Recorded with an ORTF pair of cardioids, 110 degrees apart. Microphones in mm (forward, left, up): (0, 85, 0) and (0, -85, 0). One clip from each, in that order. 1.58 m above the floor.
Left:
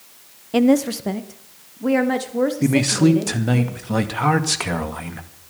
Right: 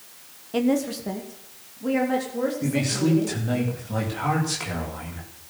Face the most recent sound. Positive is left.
turn(degrees=55)